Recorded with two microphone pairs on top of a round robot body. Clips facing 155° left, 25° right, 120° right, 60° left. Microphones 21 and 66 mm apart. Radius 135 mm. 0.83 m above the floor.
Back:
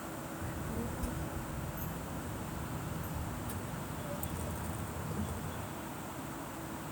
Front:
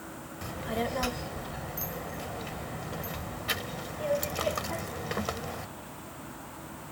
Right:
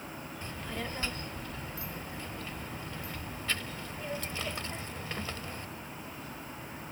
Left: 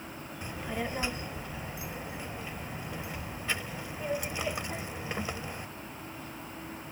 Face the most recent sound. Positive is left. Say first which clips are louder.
# front 11 dB, left 5 dB
turn(degrees=-20)